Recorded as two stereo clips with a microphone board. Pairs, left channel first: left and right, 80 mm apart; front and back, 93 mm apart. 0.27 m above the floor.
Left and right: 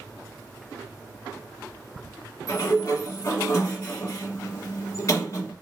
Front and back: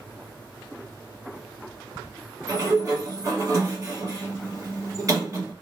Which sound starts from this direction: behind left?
A sliding door, at 2.5 s.